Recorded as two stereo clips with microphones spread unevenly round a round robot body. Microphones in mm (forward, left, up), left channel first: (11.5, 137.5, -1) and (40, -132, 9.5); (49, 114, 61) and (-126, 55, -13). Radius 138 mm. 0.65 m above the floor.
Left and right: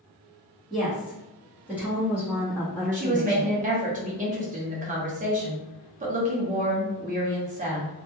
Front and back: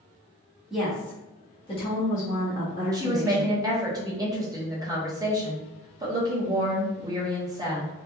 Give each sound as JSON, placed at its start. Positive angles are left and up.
{"t": 0.7, "sound": "a woman speaking", "azimuth_deg": -175, "distance_m": 1.1}
{"t": 2.9, "sound": "a woman speaking", "azimuth_deg": -135, "distance_m": 0.8}